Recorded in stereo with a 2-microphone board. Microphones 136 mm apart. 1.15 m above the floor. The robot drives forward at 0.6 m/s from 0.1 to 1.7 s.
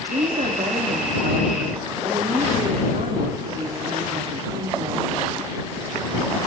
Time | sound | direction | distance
0.1 | a woman speaking | 80° right | 3 m